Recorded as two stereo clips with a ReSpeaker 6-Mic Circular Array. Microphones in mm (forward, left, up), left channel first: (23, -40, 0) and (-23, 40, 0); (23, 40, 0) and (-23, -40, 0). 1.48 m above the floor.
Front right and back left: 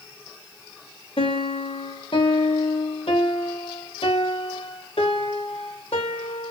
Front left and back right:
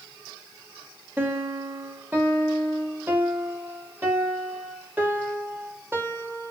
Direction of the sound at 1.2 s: 50° right.